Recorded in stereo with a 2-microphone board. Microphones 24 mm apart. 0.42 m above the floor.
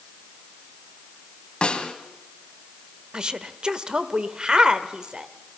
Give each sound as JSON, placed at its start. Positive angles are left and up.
{"t": 1.6, "sound": "a snare drum", "side_deg": 40, "distance_m": 2.0}
{"t": 3.1, "sound": "a woman speaking", "side_deg": -40, "distance_m": 1.1}